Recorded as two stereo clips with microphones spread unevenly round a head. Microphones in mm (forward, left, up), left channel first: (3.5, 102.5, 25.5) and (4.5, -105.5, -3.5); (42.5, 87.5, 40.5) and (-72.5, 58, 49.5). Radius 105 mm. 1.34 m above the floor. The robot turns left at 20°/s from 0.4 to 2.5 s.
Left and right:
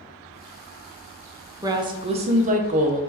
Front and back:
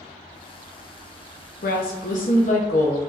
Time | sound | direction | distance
1.6 | a woman speaking | 15° right | 0.6 m